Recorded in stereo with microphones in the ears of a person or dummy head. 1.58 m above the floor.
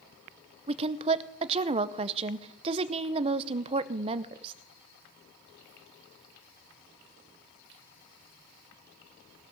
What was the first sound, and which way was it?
A woman speaking, 35° right (ahead or behind).